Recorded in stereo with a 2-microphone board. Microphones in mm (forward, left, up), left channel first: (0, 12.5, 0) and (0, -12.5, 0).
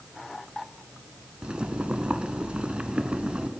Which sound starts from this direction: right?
Boiling, at 1.4 s.